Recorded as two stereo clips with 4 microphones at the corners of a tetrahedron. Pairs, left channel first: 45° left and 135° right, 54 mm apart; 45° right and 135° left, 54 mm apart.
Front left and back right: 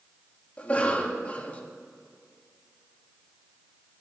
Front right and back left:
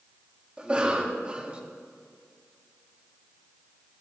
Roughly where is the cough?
Left.